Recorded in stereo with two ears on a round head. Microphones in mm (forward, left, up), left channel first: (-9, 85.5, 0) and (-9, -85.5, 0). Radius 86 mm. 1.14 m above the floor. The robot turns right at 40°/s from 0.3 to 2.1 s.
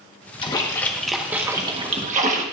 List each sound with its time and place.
0.4 s a splash: 155° left, 1.3 m; by 2.4 s 140° right, 1.3 m